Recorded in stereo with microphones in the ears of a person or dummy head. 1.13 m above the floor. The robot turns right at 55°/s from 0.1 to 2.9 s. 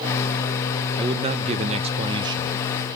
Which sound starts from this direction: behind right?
A man speaking, at 1.0 s.